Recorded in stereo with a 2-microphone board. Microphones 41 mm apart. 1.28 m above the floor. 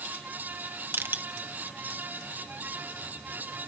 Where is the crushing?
55° right (ahead or behind), 1.4 m.